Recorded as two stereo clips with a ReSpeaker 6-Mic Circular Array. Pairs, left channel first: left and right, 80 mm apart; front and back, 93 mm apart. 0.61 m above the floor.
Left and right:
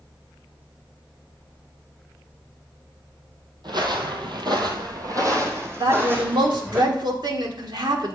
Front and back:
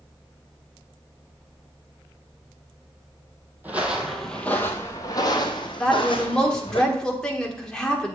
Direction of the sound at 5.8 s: 80° right.